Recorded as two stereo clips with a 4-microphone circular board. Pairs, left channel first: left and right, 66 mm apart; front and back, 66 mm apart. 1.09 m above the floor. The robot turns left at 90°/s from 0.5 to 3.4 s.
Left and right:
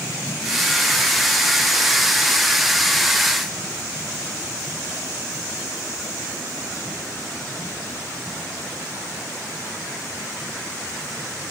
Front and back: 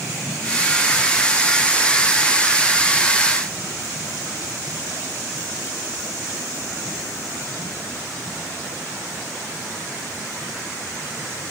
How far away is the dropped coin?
No dropped coin in this recording.